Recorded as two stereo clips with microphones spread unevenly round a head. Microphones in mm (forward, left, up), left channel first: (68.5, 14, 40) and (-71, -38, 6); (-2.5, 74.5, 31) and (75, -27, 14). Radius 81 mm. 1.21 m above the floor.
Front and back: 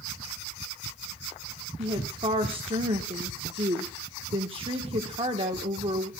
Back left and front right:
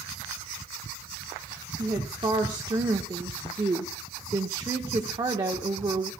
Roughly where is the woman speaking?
Behind right.